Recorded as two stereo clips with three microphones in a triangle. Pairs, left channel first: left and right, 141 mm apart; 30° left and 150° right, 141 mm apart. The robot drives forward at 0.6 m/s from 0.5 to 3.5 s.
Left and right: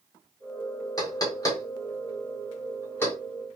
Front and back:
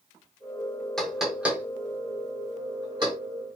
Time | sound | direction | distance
1.0 | knocking | 115° left | 1.1 m